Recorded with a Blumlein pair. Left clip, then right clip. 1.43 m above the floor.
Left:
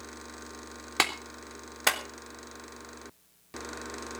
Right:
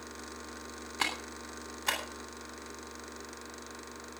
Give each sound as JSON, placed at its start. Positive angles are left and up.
{"t": 1.0, "sound": "a clap", "azimuth_deg": 40, "distance_m": 3.0}